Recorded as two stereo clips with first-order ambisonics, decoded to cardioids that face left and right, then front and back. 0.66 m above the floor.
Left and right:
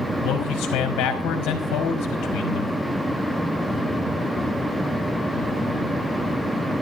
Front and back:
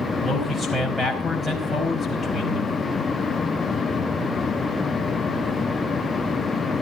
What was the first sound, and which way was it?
A man speaking, 100° left.